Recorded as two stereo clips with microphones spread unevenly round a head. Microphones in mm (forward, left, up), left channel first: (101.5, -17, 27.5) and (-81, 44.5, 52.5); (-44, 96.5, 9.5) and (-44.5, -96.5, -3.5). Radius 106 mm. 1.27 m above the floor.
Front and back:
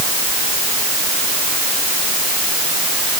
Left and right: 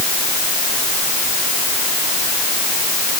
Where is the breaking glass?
No breaking glass in this recording.